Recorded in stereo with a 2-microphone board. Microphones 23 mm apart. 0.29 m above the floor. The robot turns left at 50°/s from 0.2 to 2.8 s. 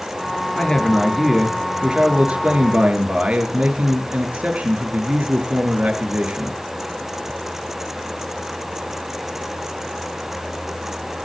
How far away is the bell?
No bell in this recording.